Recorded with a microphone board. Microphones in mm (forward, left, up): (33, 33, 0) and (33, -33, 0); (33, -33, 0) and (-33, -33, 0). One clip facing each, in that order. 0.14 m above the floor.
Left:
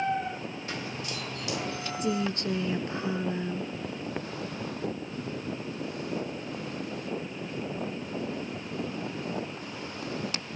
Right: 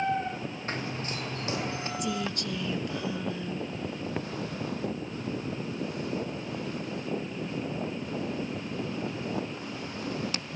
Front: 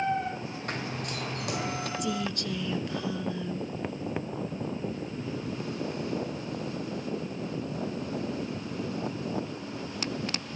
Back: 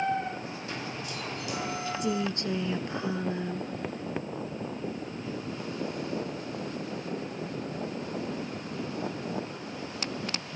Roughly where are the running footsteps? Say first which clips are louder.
Right 3 dB, front 4 dB; ahead right.